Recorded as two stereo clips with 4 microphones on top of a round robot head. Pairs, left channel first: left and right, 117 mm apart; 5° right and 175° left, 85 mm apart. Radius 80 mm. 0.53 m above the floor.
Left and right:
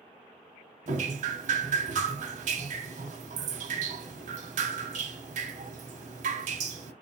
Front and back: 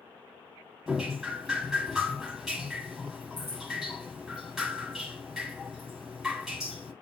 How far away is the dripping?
About 0.7 m.